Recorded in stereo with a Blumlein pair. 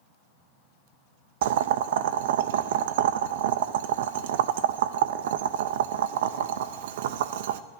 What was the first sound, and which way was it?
Boiling, 55° right.